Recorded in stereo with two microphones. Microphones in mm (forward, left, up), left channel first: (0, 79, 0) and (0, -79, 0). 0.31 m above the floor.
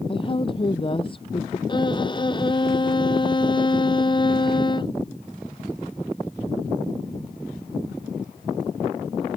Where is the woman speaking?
35° left (ahead or behind).